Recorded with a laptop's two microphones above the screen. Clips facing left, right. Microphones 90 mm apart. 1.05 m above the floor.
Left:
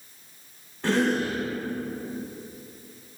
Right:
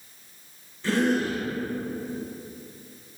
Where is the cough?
75° left (ahead or behind), 2.5 m.